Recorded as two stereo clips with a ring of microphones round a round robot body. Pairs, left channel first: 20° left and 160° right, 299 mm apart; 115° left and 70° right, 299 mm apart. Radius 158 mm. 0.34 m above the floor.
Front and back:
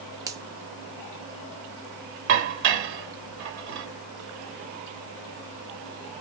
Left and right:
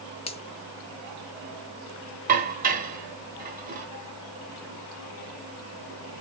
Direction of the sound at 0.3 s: 145° left.